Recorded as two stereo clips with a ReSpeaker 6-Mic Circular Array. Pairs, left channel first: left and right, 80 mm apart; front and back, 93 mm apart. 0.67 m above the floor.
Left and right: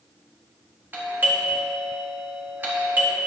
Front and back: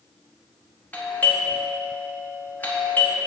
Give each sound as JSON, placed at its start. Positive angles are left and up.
{"t": 0.9, "sound": "a doorbell", "azimuth_deg": -55, "distance_m": 1.7}